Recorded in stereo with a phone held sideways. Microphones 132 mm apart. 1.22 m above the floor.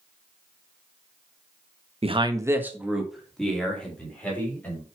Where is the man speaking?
50° right (ahead or behind), 1.0 m; by 4.8 s 10° left (ahead or behind), 4.5 m.